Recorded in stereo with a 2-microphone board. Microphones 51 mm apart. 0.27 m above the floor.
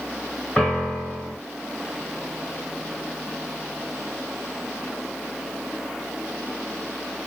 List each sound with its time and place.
0.6 s a piano: 15° left (ahead or behind), 1.7 m